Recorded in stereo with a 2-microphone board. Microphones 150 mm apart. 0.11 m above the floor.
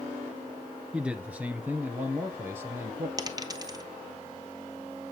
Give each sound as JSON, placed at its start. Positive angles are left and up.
{"t": 0.9, "sound": "a man speaking", "side_deg": -5, "distance_m": 1.2}
{"t": 3.2, "sound": "a dropped coin", "side_deg": -25, "distance_m": 0.8}